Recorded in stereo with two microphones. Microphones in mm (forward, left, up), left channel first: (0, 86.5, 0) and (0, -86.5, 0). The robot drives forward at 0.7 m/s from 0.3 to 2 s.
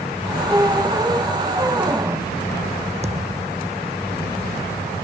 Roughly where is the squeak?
Centre.